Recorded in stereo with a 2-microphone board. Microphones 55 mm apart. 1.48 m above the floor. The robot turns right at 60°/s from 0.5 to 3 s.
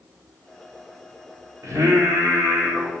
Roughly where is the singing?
Right.